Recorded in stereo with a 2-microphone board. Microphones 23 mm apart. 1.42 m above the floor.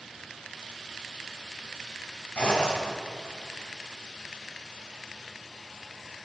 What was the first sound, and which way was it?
A zipper, 70° left (ahead or behind).